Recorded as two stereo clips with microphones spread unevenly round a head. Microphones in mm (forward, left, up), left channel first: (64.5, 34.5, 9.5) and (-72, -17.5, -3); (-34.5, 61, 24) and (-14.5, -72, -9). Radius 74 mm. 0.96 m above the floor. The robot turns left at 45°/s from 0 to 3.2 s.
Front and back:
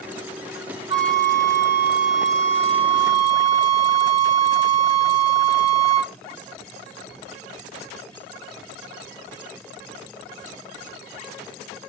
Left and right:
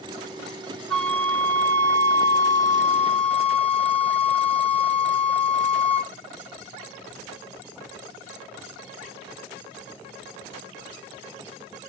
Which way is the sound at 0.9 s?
160° left.